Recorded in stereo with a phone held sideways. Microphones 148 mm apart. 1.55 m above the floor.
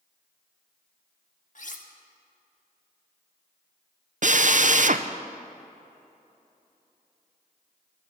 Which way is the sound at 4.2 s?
60° right (ahead or behind).